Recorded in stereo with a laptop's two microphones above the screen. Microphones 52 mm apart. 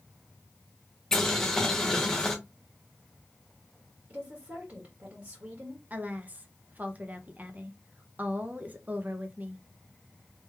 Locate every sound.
1.1 s boiling: 10° left (ahead or behind), 1.0 m
4.1 s a woman speaking: 30° right (ahead or behind), 1.9 m
5.9 s a woman speaking: 30° right (ahead or behind), 0.7 m